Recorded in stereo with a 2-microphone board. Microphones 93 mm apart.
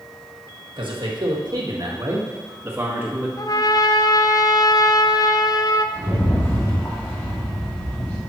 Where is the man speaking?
65° right (ahead or behind), 1.7 m; by 3.3 s 20° right (ahead or behind), 1.9 m.